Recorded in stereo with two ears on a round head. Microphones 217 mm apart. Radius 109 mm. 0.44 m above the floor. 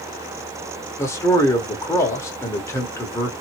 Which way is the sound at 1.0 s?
10° left (ahead or behind).